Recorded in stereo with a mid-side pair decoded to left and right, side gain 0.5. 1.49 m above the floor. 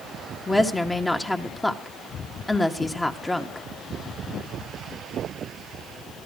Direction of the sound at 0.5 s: 15° left.